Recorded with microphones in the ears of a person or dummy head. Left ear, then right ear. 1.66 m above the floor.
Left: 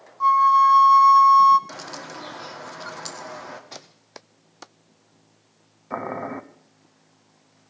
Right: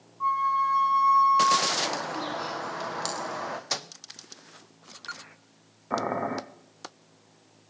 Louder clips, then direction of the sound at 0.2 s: Left 9 dB; 70° left (ahead or behind).